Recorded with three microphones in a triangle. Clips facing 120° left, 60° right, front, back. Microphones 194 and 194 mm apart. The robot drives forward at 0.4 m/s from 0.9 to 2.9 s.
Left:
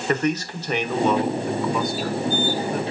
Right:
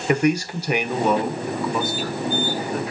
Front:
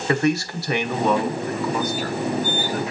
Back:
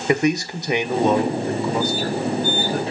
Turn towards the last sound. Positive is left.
turn(degrees=-155)